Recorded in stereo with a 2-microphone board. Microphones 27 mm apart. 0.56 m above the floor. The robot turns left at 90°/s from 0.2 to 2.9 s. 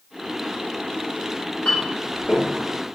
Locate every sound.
1.6 s a clink: 40° left (ahead or behind), 1.2 m; by 2.5 s 30° right (ahead or behind), 1.2 m